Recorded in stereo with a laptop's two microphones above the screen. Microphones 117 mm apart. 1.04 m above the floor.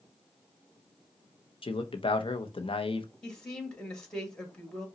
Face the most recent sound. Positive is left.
turn(degrees=5)  # may be behind; listen again after turning